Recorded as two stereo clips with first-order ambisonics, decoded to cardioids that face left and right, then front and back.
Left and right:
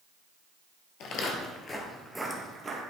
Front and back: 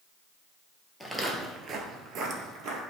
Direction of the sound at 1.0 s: 90° left.